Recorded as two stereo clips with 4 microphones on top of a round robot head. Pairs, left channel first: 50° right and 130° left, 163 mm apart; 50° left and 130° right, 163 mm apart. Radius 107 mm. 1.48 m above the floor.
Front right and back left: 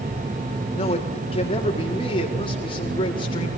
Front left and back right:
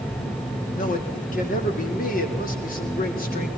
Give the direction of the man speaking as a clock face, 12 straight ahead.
12 o'clock.